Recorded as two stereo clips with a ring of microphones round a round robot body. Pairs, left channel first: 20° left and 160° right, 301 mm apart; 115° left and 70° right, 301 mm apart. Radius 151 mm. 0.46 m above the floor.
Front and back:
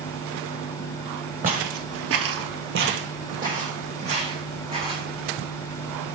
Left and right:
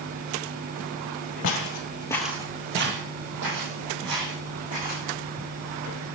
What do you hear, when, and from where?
1.4 s footsteps: 145° left, 0.7 m; by 5.0 s 85° right, 2 m